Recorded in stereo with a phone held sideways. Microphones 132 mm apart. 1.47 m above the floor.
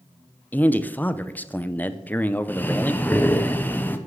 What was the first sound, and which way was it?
A man speaking, 15° left (ahead or behind).